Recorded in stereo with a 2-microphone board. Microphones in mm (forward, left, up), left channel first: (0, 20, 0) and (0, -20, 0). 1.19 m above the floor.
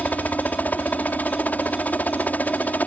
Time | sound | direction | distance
0.0 | a helicopter | 40° left (ahead or behind) | ?